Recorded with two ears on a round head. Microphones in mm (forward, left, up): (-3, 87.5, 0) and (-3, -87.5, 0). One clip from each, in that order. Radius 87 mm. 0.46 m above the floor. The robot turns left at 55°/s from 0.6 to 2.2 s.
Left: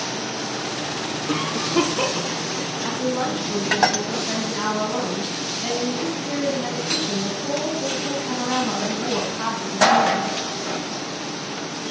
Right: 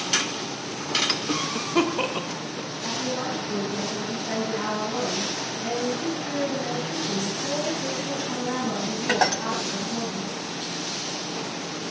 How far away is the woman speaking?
About 3 m.